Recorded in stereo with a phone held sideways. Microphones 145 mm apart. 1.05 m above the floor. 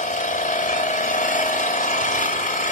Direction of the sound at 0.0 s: 60° left (ahead or behind).